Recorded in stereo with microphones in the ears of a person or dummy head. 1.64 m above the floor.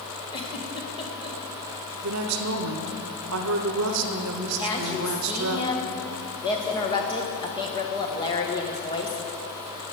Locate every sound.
0.3 s a giggle: 25° left (ahead or behind), 1.2 m
2.0 s a woman speaking: 75° right (ahead or behind), 0.9 m
4.6 s a woman speaking: 25° left (ahead or behind), 1.4 m